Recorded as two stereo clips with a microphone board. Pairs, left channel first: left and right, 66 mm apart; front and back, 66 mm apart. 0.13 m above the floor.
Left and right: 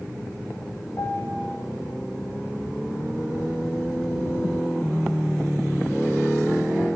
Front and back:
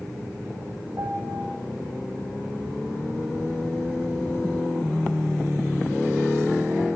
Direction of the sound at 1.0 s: 135° left.